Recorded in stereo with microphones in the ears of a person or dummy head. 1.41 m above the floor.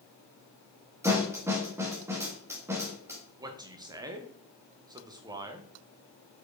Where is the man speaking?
10° right (ahead or behind), 1.1 m.